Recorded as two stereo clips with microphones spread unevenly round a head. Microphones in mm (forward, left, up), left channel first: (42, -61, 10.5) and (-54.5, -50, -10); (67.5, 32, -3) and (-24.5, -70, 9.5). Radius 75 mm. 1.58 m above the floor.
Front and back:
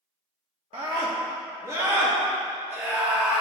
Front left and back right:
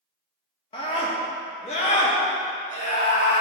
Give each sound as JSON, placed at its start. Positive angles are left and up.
{"t": 0.7, "sound": "a scream", "azimuth_deg": 110, "distance_m": 1.6}